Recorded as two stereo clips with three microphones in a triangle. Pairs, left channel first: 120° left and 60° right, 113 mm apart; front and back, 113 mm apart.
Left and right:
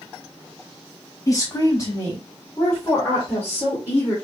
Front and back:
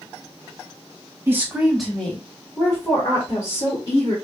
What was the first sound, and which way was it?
A woman speaking, 135° left.